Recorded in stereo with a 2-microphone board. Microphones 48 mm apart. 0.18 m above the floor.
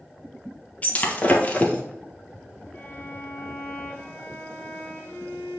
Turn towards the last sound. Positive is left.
turn(degrees=45)  # may be behind; listen again after turning